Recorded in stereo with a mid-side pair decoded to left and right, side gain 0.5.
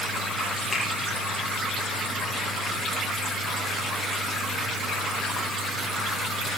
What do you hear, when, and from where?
0.7 s a finger snap: 15° left, 6.5 m